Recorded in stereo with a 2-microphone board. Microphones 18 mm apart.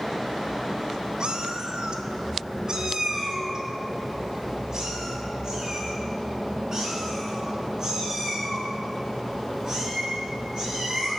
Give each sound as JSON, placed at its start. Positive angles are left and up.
{"t": 1.2, "sound": "a cat meowing", "side_deg": -50, "distance_m": 0.6}